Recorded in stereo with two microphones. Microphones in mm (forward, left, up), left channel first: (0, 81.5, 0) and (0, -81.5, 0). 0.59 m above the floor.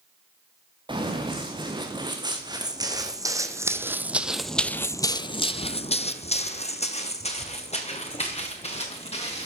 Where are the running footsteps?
30° right (ahead or behind), 2.5 m; by 9.5 s 40° left (ahead or behind), 3 m.